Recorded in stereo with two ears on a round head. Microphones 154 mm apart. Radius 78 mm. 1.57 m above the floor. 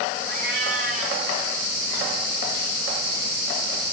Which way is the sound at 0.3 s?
65° right (ahead or behind).